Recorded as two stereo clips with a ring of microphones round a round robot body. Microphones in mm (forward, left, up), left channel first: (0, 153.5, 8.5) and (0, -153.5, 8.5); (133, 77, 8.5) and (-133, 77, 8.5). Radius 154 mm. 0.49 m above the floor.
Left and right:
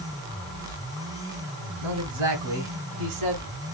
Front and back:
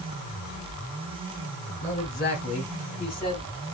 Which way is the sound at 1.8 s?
55° right.